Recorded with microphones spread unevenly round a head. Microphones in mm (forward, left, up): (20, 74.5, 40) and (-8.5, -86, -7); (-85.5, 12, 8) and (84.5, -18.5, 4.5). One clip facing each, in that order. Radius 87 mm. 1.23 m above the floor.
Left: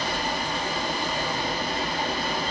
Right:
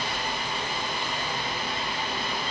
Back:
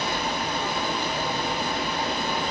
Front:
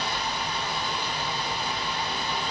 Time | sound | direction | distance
0.0 | running water | 125° left | 0.8 m